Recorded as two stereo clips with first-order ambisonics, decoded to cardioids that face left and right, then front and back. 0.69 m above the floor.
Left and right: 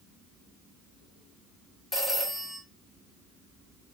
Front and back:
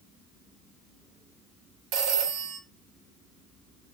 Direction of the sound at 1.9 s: 175° left.